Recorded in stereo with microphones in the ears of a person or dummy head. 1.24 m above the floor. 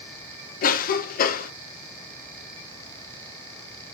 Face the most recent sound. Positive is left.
turn(degrees=55)  # may be behind; listen again after turning